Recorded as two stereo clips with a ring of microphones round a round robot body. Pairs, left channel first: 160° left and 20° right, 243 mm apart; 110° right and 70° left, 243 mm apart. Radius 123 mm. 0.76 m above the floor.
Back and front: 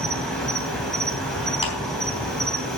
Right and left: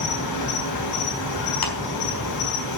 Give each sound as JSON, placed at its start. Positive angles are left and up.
{"t": 0.0, "sound": "an insect", "azimuth_deg": -115, "distance_m": 4.5}
{"t": 1.6, "sound": "a clap", "azimuth_deg": -135, "distance_m": 4.5}